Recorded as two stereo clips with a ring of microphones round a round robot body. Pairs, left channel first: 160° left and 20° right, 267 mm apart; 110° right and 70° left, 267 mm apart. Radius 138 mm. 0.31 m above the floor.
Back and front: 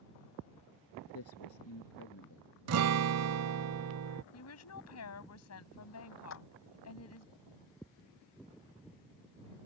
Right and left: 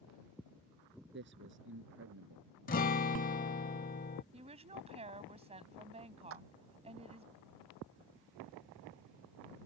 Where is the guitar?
55° right.